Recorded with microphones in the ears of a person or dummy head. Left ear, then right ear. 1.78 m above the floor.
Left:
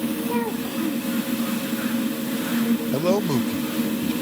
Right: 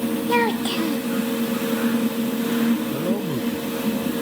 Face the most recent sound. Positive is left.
turn(degrees=70)  # may be behind; listen again after turning